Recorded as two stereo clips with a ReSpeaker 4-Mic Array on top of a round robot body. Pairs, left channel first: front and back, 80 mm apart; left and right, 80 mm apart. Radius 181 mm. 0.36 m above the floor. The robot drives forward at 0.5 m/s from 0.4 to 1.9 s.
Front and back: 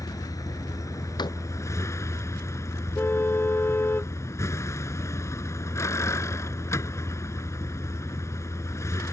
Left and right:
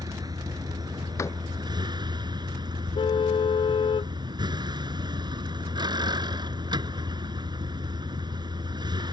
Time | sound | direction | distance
0.0 | a vehicle | 50° right | ?
1.2 | a door slam | 35° left | ?
3.0 | a car horn | 65° left | ?